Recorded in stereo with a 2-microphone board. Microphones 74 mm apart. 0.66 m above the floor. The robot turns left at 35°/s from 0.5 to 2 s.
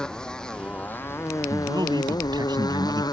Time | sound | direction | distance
0.0 | a motorcycle | 170° left | ?
1.5 | a man speaking | 55° right (ahead or behind) | ?